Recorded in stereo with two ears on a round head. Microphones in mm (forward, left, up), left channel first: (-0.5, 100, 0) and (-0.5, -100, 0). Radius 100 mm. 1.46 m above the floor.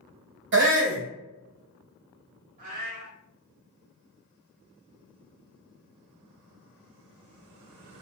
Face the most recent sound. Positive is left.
turn(degrees=-40)  # may be behind; listen again after turning